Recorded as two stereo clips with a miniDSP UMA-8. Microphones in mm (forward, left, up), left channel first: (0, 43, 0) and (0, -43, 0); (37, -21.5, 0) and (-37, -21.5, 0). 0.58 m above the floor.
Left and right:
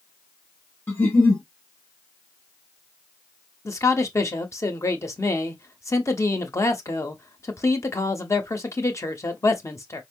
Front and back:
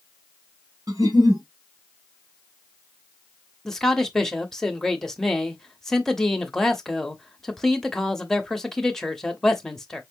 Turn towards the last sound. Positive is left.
turn(degrees=80)